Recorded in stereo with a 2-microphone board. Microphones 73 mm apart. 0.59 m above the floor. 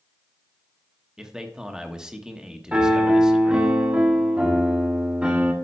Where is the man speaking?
10° right (ahead or behind), 1.0 m.